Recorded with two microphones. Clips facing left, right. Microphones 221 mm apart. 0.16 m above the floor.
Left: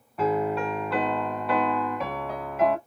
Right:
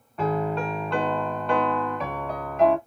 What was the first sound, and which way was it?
A piano, 5° left (ahead or behind).